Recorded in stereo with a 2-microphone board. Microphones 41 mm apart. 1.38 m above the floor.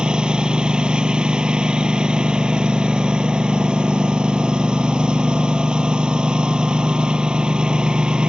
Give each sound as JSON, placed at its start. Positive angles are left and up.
{"t": 0.0, "sound": "a lawn mower", "side_deg": -20}